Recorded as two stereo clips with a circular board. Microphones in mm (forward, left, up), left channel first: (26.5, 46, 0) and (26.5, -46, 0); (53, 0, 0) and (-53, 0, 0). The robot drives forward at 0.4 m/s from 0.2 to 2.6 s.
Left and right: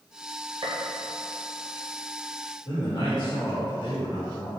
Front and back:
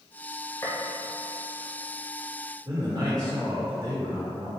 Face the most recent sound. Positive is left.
turn(degrees=120)